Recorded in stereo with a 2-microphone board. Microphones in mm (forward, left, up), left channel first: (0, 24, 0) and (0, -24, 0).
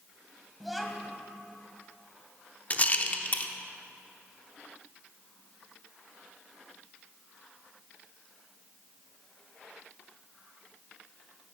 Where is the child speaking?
Centre (ahead or behind), 1.9 m.